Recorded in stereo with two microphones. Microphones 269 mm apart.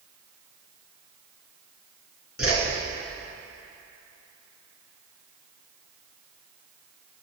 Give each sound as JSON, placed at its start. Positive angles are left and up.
{"t": 2.4, "sound": "a whoosh", "side_deg": 55, "distance_m": 3.5}